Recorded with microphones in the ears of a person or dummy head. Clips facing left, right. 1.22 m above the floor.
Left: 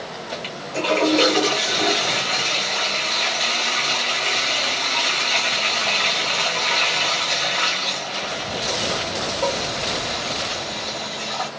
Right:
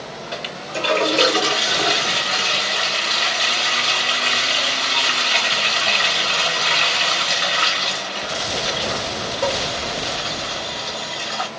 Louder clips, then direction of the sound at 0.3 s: Left 1 dB; 15° right (ahead or behind).